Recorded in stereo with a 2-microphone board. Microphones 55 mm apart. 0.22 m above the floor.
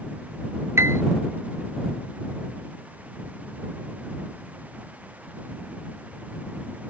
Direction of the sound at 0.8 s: 50° right (ahead or behind).